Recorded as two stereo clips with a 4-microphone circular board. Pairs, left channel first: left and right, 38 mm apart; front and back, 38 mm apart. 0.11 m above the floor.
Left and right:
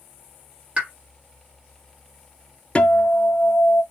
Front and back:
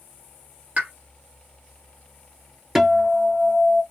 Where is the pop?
140° right, 2 m.